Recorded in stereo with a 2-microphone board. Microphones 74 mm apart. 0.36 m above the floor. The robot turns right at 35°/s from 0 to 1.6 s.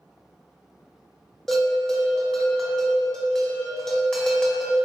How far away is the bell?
About 0.8 m.